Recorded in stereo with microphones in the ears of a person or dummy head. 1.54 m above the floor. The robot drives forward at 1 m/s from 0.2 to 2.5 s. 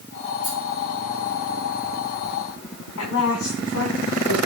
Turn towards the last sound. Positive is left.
turn(degrees=75)  # may be behind; listen again after turning